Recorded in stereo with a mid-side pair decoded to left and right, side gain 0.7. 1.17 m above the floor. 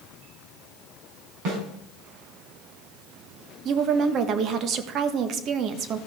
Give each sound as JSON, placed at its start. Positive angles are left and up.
{"t": 1.4, "sound": "a snare drum", "azimuth_deg": -65, "distance_m": 4.0}
{"t": 3.6, "sound": "a woman speaking", "azimuth_deg": -50, "distance_m": 1.2}